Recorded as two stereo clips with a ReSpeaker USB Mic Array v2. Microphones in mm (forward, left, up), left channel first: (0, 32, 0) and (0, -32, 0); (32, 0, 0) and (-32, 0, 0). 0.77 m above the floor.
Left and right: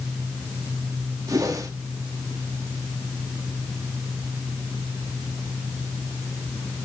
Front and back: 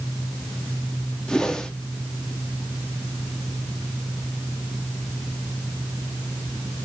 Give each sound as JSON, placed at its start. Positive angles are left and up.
{"t": 1.3, "sound": "a whoosh", "azimuth_deg": -75, "distance_m": 1.1}